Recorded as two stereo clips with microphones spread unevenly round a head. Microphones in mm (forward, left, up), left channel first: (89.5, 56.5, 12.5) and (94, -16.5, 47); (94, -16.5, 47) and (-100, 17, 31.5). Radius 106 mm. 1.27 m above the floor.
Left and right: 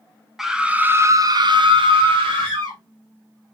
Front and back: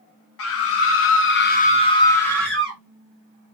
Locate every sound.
0.4 s a scream: 5° left, 0.9 m; by 2.8 s 105° right, 1.1 m